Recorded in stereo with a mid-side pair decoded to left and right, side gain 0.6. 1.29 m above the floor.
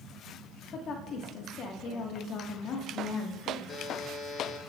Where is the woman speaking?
50° left, 1.6 m.